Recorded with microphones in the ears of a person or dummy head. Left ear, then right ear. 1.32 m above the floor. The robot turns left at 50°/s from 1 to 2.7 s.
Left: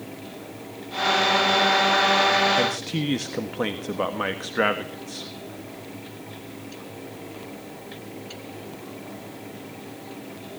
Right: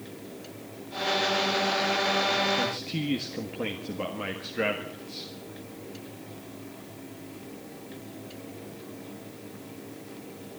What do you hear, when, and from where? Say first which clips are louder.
2.6 s a man speaking: left 5 dB; 35° left (ahead or behind), 1.6 m; by 5.3 s 40° left (ahead or behind), 1.6 m